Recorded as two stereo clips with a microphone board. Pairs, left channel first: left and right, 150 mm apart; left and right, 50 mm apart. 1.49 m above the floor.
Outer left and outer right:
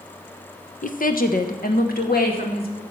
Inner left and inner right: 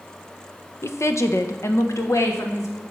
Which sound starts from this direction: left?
A woman speaking, at 0.8 s.